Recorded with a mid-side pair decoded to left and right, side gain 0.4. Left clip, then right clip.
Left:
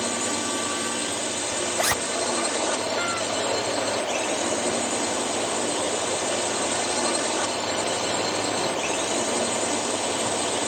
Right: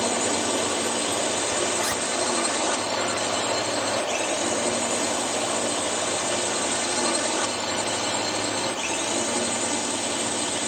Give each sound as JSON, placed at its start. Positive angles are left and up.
{"t": 0.0, "sound": "a drone", "azimuth_deg": -10}
{"t": 1.8, "sound": "a zipper", "azimuth_deg": 50}